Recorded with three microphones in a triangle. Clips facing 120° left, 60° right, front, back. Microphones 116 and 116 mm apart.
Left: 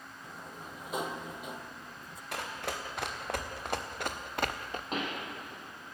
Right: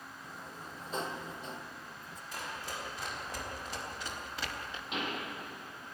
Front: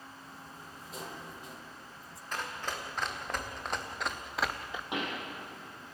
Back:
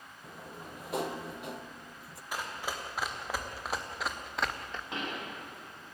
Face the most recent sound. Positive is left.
turn(degrees=70)